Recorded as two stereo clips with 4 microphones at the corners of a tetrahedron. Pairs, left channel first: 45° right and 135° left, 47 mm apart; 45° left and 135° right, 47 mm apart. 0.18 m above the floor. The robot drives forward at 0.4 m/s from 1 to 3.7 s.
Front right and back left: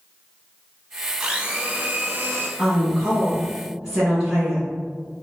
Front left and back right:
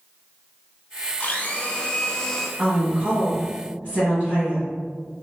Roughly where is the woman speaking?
Behind right.